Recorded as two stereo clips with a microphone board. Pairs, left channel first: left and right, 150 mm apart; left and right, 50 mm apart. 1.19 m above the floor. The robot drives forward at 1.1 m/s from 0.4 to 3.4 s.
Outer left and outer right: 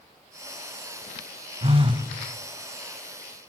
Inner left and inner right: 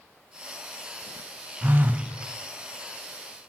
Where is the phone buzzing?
45° right (ahead or behind), 0.9 m; by 2.1 s 30° right (ahead or behind), 1.3 m.